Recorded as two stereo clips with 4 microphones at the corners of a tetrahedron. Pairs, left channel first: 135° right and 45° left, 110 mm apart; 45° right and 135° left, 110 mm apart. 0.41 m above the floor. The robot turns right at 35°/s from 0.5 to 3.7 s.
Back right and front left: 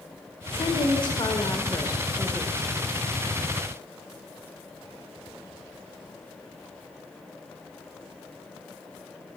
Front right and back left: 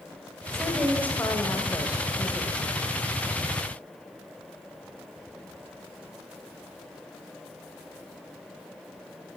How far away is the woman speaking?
About 1.6 m.